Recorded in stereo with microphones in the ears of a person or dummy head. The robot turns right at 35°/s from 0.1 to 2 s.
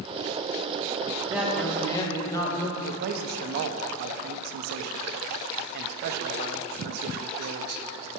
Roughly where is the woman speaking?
Centre.